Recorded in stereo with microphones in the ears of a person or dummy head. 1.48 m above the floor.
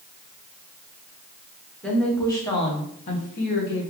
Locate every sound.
1.8 s a woman speaking: 5° left (ahead or behind), 1.3 m; by 3.9 s 70° left (ahead or behind), 1.3 m